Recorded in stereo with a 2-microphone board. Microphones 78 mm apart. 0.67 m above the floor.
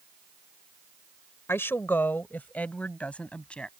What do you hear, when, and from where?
1.5 s a woman speaking: 30° left (ahead or behind); by 3.7 s 10° left (ahead or behind)